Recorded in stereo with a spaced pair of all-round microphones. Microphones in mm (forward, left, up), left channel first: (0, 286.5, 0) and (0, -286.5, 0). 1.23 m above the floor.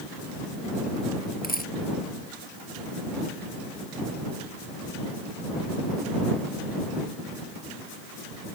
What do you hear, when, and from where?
1.4 s a dropped coin: 15° left (ahead or behind)